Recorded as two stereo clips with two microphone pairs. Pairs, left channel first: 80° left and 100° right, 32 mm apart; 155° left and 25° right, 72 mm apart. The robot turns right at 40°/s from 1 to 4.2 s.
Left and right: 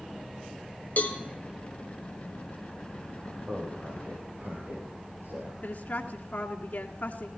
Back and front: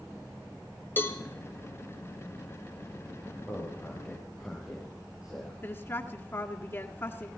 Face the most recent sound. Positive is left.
turn(degrees=115)